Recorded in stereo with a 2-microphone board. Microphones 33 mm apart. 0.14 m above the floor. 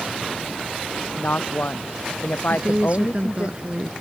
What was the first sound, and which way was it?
A woman speaking, 75° left (ahead or behind).